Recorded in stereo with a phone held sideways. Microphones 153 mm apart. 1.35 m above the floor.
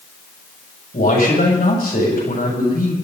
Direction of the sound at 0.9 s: 80° left.